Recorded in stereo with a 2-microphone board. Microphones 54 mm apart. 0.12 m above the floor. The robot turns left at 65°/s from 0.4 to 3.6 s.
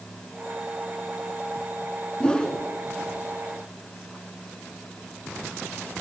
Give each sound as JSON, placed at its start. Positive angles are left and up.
{"t": 2.2, "sound": "a whoosh", "side_deg": 15, "distance_m": 1.2}